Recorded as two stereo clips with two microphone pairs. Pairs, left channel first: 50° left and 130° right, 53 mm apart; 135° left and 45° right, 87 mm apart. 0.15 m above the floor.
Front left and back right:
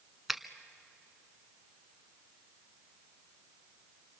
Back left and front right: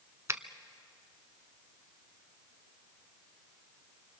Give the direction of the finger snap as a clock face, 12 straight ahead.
2 o'clock.